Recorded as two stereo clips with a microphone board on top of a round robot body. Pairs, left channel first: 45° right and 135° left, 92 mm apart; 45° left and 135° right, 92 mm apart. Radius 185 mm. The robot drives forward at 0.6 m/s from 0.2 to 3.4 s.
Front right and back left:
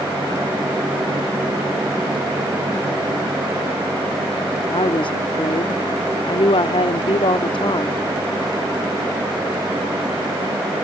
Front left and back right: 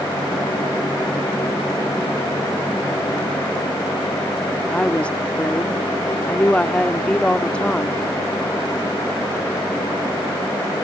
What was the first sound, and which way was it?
A woman speaking, 30° right.